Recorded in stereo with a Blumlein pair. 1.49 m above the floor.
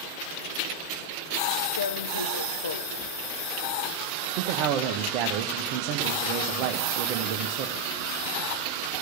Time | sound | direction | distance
1.8 | tearing paper | 70° left | 0.8 m
4.4 | a man speaking | 40° right | 1.0 m